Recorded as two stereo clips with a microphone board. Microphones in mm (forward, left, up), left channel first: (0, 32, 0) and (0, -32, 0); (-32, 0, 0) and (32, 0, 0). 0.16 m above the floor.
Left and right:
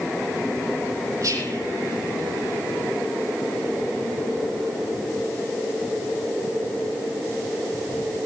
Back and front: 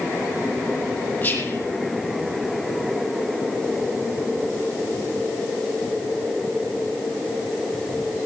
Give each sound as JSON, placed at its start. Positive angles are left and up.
{"t": 1.2, "sound": "whispering", "azimuth_deg": -120, "distance_m": 6.5}